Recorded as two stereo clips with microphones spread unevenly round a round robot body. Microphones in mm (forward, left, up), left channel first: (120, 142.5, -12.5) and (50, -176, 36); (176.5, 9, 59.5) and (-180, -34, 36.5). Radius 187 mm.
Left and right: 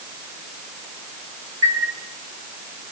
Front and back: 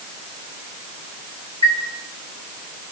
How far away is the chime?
About 4 m.